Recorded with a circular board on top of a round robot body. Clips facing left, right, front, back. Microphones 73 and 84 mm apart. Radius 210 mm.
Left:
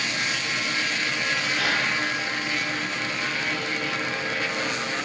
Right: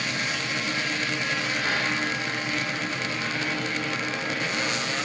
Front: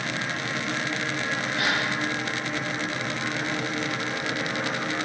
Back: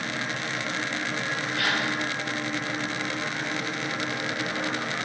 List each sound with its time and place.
1.6 s a gasp: 70° left, 9 m